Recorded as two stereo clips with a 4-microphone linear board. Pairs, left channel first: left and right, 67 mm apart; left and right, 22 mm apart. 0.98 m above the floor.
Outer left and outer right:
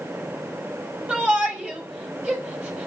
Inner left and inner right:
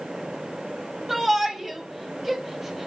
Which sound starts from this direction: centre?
A shout, at 1.1 s.